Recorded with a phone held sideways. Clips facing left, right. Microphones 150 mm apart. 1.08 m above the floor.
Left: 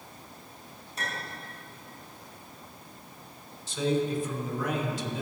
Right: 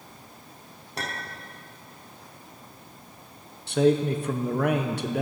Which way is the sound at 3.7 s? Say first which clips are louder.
Right 6 dB; 60° right (ahead or behind).